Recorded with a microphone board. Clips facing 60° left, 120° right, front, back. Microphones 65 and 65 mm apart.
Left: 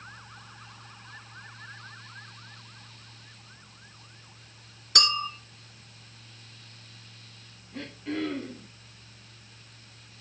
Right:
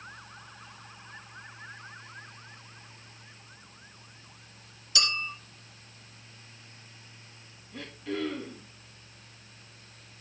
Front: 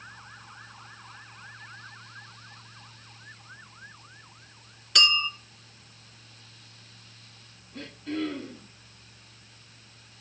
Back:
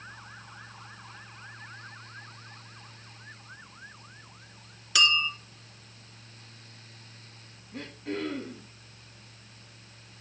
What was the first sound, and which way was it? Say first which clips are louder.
A clink: left 5 dB, even; 95° left.